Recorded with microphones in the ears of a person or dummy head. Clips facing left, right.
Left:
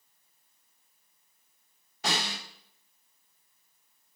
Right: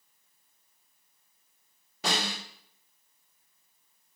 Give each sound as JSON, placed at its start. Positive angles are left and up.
{"t": 2.0, "sound": "a snare drum", "side_deg": -85, "distance_m": 6.0}